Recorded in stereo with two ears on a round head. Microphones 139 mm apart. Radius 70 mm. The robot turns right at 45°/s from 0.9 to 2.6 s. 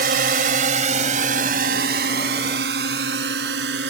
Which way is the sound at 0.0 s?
65° right (ahead or behind).